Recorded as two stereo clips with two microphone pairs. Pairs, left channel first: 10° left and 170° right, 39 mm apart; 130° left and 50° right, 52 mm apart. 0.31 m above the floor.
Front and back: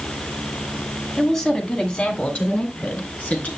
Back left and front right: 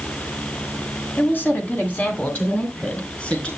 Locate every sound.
1.2 s a woman speaking: 95° left, 1.9 m; by 3.5 s 65° left, 4 m